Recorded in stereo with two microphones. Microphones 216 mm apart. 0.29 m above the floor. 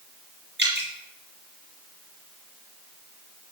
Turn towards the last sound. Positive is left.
turn(degrees=-55)  # may be behind; listen again after turning